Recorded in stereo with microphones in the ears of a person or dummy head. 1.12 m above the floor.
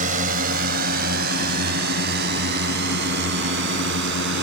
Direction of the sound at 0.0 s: 40° right (ahead or behind).